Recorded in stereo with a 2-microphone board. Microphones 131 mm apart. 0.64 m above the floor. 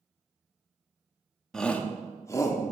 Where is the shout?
5° left (ahead or behind), 0.8 m; by 2.6 s 30° left (ahead or behind), 1.2 m.